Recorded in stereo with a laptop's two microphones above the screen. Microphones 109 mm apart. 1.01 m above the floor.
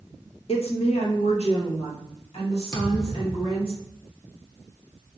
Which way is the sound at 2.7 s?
30° left (ahead or behind).